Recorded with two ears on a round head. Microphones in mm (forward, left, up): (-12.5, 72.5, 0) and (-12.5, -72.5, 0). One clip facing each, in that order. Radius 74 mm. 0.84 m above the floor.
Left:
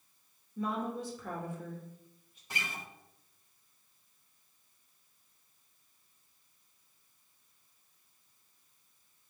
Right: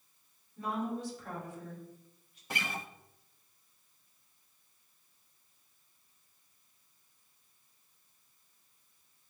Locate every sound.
0.6 s a woman speaking: 75° left (ahead or behind), 2.5 m
2.5 s a guitar: 50° right (ahead or behind), 0.6 m